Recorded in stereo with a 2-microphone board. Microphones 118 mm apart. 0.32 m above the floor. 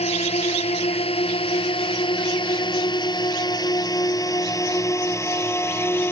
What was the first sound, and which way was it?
A drone, 60° left (ahead or behind).